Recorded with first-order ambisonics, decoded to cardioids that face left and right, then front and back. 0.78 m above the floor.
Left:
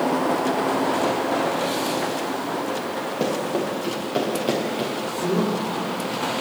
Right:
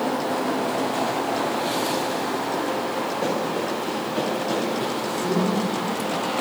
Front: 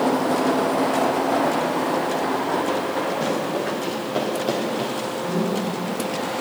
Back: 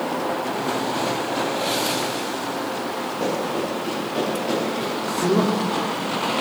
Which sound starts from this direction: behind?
A man speaking, at 5.2 s.